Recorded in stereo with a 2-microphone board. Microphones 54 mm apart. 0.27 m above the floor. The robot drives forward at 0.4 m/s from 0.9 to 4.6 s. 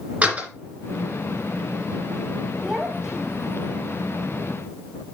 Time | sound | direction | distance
0.2 | a door slam | 25° right (ahead or behind) | 2.5 m
2.6 | a child speaking | 15° right (ahead or behind) | 0.7 m